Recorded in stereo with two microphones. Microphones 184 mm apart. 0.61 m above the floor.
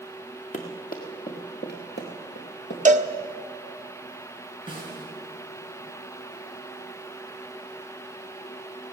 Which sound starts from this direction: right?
A cowbell, at 2.9 s.